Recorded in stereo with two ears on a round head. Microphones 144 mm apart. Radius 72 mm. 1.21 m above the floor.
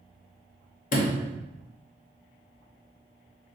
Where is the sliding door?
50° left (ahead or behind), 0.6 m.